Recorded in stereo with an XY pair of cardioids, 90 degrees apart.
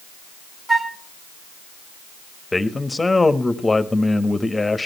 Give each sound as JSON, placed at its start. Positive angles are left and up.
{"t": 0.7, "sound": "a flute", "azimuth_deg": -20, "distance_m": 1.0}
{"t": 2.5, "sound": "a man speaking", "azimuth_deg": 20, "distance_m": 1.5}